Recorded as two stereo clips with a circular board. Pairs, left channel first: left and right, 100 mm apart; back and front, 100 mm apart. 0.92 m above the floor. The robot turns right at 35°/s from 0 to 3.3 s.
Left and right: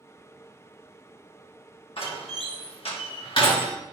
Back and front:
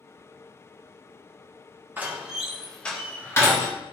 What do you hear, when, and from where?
2.0 s a door slam: 70° left, 1.5 m; by 3.7 s 115° left, 1.5 m